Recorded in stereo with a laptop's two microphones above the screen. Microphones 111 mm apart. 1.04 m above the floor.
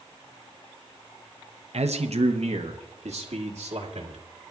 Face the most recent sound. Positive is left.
turn(degrees=-75)  # may be behind; listen again after turning